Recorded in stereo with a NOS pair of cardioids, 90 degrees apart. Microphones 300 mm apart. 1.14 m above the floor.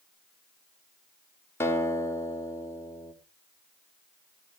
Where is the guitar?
10° left, 4.5 m.